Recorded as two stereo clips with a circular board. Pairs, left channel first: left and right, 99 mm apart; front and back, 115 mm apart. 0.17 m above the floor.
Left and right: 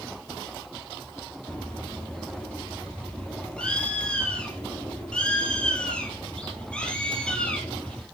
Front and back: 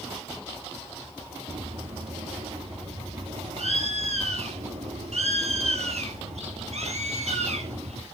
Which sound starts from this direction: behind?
A bird, at 1.5 s.